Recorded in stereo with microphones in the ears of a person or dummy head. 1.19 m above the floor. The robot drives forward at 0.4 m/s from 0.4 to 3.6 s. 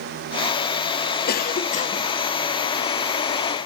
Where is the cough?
55° left (ahead or behind), 0.7 m; by 2.1 s 35° left (ahead or behind), 0.9 m.